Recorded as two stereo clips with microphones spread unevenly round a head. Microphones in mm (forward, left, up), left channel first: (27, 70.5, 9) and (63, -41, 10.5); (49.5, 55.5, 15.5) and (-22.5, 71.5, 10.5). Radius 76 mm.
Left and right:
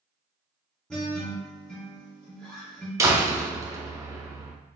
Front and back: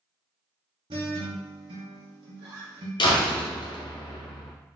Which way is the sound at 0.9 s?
165° right.